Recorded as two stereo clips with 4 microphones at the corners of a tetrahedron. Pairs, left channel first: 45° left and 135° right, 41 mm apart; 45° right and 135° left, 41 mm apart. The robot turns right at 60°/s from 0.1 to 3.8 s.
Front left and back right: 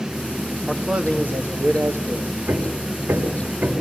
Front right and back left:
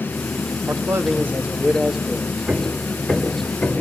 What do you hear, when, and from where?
0.7 s a man speaking: 140° left, 2 m; by 2.3 s 120° right, 2 m
2.5 s hammering: 155° right, 4.5 m; by 3.8 s 75° right, 4.5 m